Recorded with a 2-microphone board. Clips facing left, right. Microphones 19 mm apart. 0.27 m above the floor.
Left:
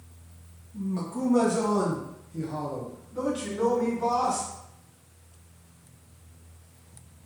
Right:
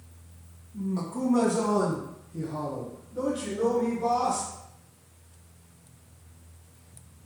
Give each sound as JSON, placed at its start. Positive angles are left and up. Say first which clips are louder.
{"t": 0.7, "sound": "a man speaking", "louder": "even", "side_deg": -5, "distance_m": 1.2}